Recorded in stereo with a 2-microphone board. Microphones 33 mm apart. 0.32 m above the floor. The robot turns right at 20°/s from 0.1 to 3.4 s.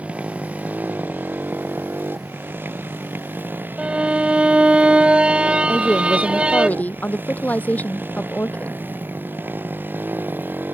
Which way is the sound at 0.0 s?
135° right.